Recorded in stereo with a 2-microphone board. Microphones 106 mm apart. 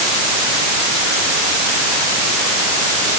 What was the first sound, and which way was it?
Only background noise.